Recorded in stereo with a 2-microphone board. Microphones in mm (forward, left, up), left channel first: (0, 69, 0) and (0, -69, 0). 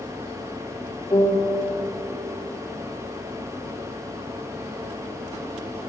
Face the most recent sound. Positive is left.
turn(degrees=60)  # may be behind; listen again after turning